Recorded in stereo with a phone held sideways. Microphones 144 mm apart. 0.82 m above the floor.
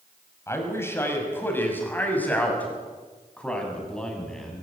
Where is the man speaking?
20° left (ahead or behind), 5.5 m; by 4.6 s 5° left (ahead or behind), 7 m.